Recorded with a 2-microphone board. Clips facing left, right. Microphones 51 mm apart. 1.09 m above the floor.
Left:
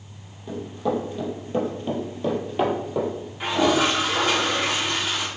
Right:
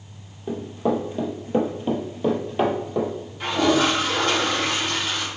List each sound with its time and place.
0.5 s running footsteps: 30° right (ahead or behind), 1.4 m; by 3.1 s 5° left (ahead or behind), 1.2 m
3.4 s a toilet flushing: 15° left (ahead or behind), 1.1 m